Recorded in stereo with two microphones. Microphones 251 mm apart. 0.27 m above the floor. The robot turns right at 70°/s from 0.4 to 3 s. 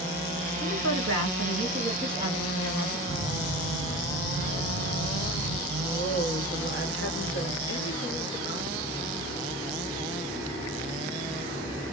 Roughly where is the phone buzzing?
Left.